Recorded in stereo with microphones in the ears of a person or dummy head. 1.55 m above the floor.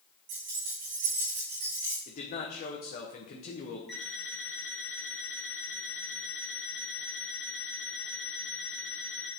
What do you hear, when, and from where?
0.3 s keys jangling: 55° right (ahead or behind), 2.5 m; by 2.0 s 35° right (ahead or behind), 3.5 m
2.1 s a man speaking: 40° left (ahead or behind), 0.9 m
3.9 s an alarm clock: 5° left (ahead or behind), 3 m